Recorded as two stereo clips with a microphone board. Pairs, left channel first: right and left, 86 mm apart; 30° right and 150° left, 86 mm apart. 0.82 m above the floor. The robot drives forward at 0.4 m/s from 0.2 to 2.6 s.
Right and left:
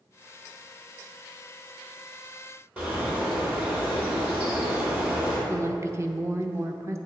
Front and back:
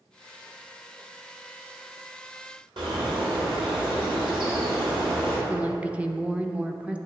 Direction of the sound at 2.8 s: 165° left.